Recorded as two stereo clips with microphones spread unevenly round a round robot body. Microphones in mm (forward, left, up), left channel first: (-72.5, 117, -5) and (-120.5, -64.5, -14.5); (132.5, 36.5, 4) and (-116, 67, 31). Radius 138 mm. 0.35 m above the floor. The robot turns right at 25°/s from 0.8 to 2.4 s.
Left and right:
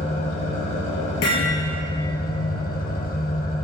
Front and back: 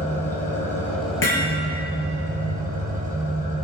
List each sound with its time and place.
0.0 s an engine running: 75° left, 3 m; by 3.6 s 115° left, 3 m
1.2 s hammering: 30° left, 3.5 m; by 1.6 s 40° left, 3.5 m